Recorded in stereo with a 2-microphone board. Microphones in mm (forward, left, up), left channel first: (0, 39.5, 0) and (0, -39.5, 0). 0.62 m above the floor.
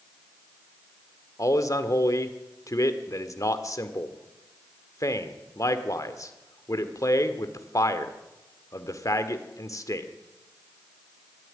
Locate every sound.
1.4 s a man speaking: 50° left (ahead or behind), 1.8 m